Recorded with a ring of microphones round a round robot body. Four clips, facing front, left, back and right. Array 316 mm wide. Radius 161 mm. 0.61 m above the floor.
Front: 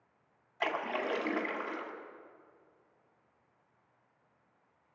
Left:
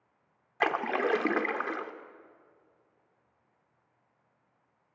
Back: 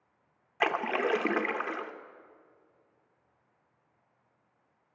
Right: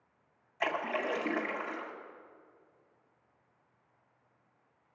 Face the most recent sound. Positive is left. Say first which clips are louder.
# left 5 dB, back 5 dB
turn(degrees=125)